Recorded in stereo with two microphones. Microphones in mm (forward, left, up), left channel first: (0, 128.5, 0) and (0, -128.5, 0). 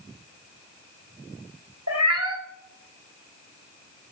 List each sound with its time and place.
1.9 s a cat meowing: 65° right (ahead or behind), 1.5 m